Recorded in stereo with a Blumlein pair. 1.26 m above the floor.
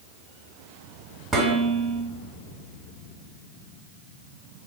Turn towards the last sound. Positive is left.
turn(degrees=-10)